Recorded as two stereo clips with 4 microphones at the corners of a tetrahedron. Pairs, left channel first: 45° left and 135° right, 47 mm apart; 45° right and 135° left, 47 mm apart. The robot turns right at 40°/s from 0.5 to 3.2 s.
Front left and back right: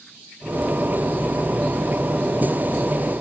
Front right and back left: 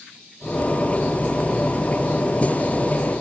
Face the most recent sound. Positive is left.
No sound to turn to.